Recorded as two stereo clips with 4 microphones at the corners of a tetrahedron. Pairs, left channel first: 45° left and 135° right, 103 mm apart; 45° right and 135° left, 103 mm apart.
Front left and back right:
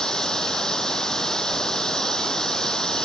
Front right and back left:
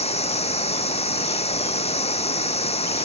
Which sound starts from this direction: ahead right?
Running water, at 0.0 s.